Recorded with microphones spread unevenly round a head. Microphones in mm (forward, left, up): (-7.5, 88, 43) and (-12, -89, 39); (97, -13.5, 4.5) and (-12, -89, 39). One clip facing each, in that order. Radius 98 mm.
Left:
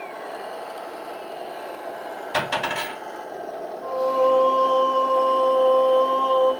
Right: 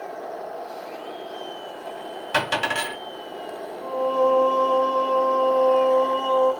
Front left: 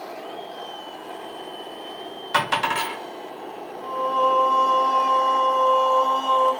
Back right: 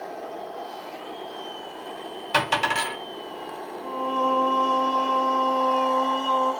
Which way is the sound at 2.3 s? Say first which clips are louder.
Right 1 dB, front left 1 dB; 80° right.